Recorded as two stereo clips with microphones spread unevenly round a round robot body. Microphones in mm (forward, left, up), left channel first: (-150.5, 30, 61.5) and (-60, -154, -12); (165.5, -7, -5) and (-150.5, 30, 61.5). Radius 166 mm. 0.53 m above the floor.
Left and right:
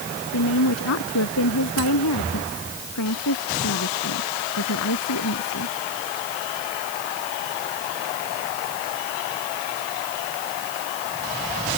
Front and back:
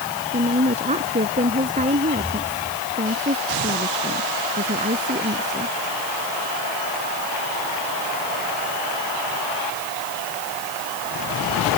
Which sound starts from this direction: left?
A woman speaking, at 0.3 s.